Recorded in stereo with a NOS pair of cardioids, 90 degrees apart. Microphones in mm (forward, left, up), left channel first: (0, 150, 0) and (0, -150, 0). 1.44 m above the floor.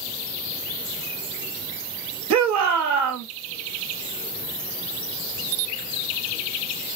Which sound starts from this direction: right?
A shout, at 2.3 s.